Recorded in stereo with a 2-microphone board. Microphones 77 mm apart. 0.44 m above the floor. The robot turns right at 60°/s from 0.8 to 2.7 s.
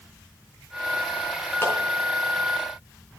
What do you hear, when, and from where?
1.6 s a clap: 30° left (ahead or behind), 4 m; by 1.8 s 35° left (ahead or behind), 4 m